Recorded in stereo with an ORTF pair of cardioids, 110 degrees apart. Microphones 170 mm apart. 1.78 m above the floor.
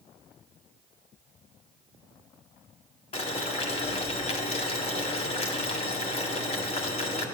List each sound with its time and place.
3.1 s boiling: 40° left, 2.0 m